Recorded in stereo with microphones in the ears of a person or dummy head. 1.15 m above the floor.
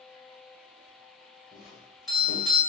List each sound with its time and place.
1.5 s a doorbell: centre (ahead or behind), 1.6 m